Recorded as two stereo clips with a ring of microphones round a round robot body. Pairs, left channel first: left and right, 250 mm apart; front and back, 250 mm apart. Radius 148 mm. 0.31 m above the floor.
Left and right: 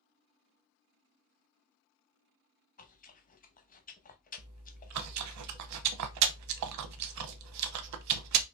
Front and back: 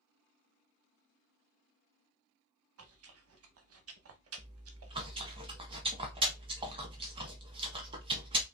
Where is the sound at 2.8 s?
150° left, 0.8 m.